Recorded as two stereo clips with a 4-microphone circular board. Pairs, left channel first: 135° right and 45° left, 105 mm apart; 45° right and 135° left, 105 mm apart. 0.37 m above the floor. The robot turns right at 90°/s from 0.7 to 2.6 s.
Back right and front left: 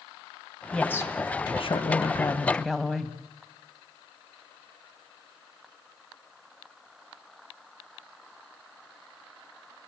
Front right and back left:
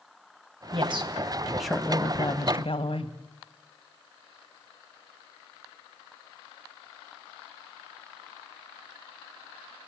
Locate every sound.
0.7 s a woman speaking: 140° left, 2 m; by 3.1 s 50° right, 2 m